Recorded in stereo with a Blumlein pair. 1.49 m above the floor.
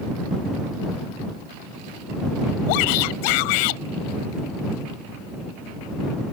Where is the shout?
45° left.